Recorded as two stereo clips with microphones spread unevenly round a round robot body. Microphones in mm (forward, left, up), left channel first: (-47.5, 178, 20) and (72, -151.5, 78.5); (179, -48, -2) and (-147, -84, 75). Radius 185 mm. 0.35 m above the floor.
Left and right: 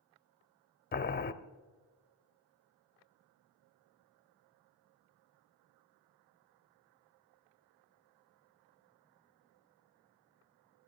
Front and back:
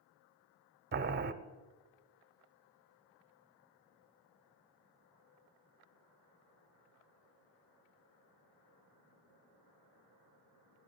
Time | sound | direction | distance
0.9 | boiling | 125° left | 0.7 m